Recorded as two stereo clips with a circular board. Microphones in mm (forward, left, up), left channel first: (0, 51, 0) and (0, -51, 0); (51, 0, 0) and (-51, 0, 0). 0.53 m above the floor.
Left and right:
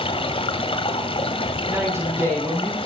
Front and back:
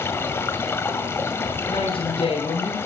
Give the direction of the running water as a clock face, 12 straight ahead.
10 o'clock.